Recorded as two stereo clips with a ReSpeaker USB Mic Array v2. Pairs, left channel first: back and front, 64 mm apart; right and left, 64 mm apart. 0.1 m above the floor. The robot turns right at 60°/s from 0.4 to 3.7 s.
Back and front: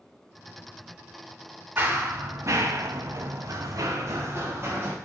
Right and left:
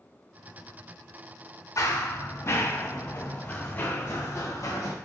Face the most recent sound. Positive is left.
turn(degrees=-55)